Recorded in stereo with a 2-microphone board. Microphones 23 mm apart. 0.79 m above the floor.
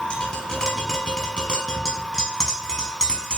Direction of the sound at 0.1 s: 40° left (ahead or behind).